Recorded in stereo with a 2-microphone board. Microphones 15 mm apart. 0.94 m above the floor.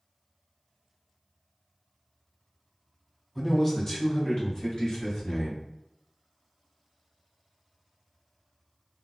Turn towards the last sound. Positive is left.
turn(degrees=60)  # may be behind; listen again after turning